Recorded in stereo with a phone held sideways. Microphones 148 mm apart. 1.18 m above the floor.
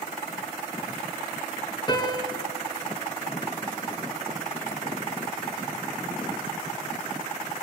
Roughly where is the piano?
Left.